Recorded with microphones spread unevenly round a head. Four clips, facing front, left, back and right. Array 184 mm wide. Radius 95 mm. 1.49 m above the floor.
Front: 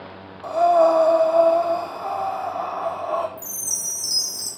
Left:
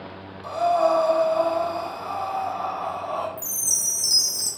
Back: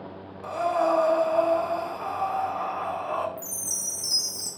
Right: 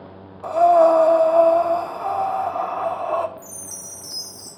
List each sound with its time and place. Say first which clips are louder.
0.4 s breathing: right 7 dB, front 9 dB; 70° right, 0.6 m
3.4 s a chime: left 1 dB, even; 140° left, 1.1 m